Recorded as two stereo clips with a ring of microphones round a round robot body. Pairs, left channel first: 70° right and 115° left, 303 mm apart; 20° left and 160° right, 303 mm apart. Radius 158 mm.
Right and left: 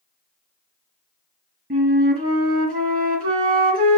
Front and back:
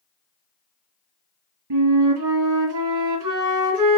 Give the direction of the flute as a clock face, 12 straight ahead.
6 o'clock.